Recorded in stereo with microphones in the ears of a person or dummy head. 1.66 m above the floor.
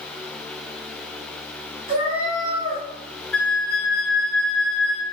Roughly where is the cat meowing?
Right.